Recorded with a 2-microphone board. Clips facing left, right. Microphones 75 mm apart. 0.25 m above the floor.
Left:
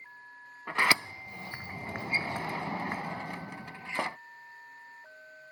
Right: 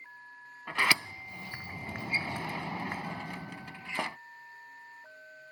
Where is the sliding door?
20° left (ahead or behind).